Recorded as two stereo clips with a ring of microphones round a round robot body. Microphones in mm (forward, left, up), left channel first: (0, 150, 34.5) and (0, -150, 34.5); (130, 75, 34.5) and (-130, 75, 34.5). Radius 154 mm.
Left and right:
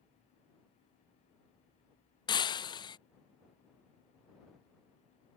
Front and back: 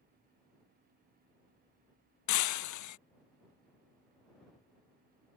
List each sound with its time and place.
2.3 s breaking glass: 15° left